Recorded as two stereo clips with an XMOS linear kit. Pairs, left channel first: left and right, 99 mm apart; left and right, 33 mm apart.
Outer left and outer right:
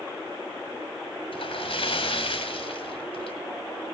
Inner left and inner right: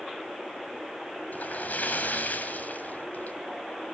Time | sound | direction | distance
1.3 | a splash | 65° left (ahead or behind) | 1.8 m